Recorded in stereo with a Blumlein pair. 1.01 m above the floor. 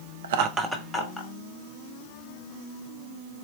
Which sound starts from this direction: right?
Laughter, at 0.2 s.